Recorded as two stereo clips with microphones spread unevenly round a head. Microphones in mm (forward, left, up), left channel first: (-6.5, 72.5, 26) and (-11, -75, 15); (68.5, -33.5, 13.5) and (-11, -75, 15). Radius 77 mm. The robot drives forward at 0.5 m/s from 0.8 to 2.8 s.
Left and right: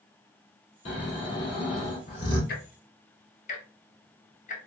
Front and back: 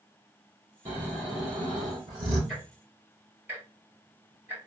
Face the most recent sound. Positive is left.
turn(degrees=130)